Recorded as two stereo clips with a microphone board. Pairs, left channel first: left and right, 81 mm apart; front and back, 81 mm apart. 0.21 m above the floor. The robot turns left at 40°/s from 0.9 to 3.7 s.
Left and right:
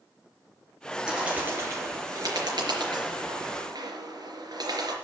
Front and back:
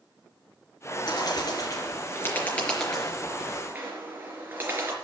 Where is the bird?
10° right, 4 m; by 4.9 s 115° right, 4 m.